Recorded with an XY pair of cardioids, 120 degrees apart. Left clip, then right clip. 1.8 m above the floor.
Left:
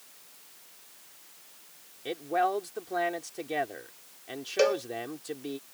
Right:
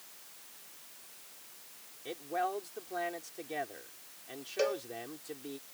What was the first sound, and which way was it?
A man speaking, 40° left.